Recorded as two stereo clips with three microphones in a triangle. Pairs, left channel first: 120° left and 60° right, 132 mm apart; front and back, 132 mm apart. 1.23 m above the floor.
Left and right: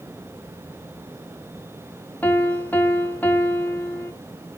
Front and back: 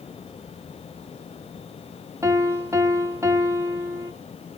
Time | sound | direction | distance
2.2 | a piano | 170° left | 0.7 m